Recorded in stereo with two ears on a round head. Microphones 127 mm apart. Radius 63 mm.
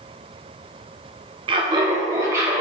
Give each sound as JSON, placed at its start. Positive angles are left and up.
{"t": 1.5, "sound": "laughter", "side_deg": -35, "distance_m": 0.7}